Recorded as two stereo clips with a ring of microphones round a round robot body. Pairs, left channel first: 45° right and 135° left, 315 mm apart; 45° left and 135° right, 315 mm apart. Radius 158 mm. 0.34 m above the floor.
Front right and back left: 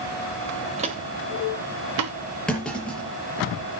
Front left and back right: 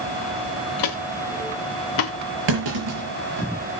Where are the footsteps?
65° left, 1.4 m; by 2.1 s 95° left, 2 m.